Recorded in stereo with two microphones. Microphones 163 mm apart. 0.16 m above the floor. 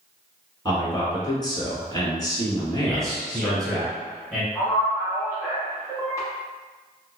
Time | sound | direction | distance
0.7 | a man speaking | 25° left (ahead or behind) | 1.3 m
2.9 | a man speaking | 5° left (ahead or behind) | 1.1 m
4.5 | a man speaking | 20° left (ahead or behind) | 1.4 m